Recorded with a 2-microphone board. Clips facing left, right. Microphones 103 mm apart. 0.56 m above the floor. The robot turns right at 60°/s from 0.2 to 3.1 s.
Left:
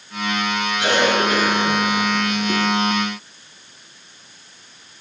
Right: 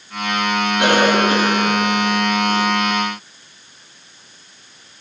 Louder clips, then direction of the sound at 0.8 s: Right 3 dB; 60° right.